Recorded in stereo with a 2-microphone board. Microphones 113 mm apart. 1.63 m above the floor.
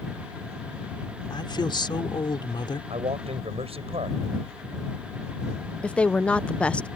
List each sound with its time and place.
1.3 s a woman speaking: 40° left (ahead or behind)
2.9 s a man speaking: 60° right (ahead or behind)
5.8 s a woman speaking: 10° left (ahead or behind)